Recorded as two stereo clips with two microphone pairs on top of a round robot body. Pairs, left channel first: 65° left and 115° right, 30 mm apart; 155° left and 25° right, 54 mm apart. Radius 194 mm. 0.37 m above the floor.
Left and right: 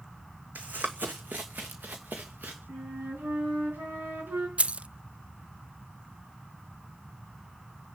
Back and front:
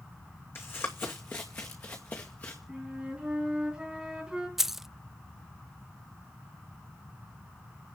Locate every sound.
0.6 s running footsteps: 155° right, 1.4 m; by 2.6 s 145° right, 3 m
2.7 s a flute: 100° right, 5.5 m
4.6 s keys jangling: 110° right, 0.6 m